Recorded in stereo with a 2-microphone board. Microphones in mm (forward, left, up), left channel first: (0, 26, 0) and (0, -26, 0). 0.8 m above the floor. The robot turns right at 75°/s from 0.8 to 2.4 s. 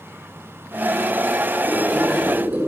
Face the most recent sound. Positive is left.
turn(degrees=-145)